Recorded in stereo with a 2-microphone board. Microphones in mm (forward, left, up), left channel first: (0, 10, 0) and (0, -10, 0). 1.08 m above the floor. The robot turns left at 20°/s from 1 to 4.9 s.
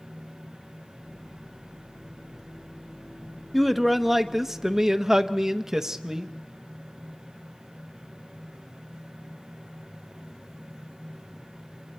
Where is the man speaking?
Centre (ahead or behind), 0.8 m; by 6.3 s 25° right (ahead or behind), 0.8 m.